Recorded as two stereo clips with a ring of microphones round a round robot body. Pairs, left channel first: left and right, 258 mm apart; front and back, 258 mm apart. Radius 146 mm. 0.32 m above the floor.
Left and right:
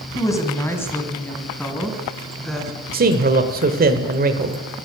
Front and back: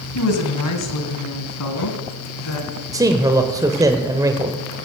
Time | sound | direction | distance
0.1 | a woman speaking | 15° left | 2.5 m
2.9 | a man speaking | 110° right | 1.1 m